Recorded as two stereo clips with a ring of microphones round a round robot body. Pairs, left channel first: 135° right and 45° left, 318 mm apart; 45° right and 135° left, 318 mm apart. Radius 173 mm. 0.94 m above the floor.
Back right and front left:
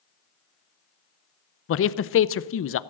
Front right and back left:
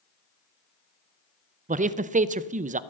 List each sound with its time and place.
1.7 s a man speaking: 165° right, 0.6 m